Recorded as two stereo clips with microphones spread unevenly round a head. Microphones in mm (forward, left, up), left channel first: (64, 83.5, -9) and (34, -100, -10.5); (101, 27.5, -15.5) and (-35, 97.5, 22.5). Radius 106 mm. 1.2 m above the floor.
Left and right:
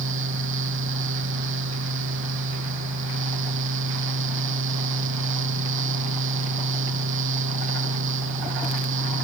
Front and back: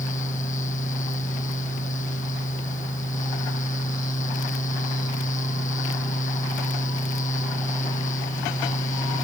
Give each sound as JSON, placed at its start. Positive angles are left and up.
{"t": 0.0, "sound": "a fan", "azimuth_deg": -85}